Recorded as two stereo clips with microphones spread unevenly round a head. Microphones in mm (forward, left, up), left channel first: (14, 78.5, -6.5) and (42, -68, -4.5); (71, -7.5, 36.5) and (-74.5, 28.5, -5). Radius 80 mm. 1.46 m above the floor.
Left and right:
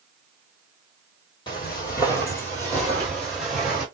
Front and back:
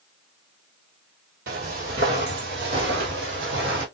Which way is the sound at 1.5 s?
150° left.